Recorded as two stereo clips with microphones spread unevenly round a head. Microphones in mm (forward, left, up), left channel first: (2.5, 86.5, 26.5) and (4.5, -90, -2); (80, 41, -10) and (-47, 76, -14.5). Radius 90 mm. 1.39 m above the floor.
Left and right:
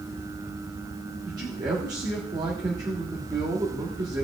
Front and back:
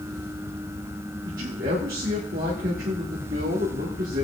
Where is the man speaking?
160° right, 1.3 m.